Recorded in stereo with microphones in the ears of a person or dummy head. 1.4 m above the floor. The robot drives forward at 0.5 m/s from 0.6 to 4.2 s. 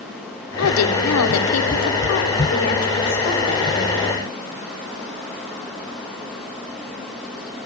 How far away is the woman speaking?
About 1.0 m.